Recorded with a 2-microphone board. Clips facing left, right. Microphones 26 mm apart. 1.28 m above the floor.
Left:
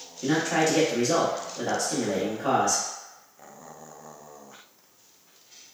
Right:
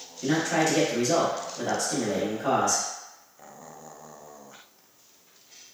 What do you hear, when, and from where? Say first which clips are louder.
0.2 s a man speaking: left 1 dB; 5° left (ahead or behind), 1.0 m